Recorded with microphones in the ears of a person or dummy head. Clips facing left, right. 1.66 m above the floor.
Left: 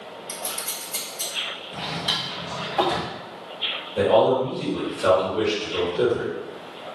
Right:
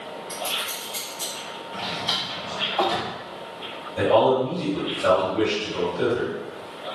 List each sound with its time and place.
0.3 s scissors: 65° left (ahead or behind), 1.3 m
1.7 s a drawer: 45° left (ahead or behind), 1.0 m
4.0 s a man speaking: 35° left (ahead or behind), 1.5 m